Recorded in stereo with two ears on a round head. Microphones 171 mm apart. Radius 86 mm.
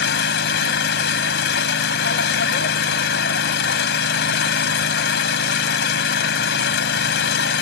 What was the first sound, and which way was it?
An engine running, 65° left (ahead or behind).